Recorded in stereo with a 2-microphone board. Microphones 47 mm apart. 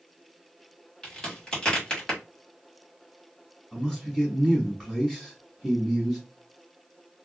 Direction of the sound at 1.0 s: 15° left (ahead or behind).